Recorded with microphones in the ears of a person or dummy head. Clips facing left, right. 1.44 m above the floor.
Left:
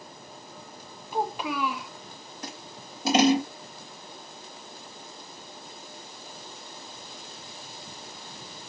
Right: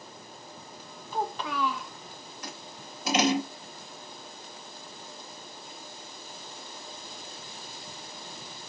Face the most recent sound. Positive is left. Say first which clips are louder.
# left 3 dB
turn(degrees=35)  # may be behind; listen again after turning